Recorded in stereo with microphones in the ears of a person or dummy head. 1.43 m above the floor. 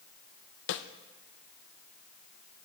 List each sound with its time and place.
0.7 s a snare drum: 60° left (ahead or behind), 0.9 m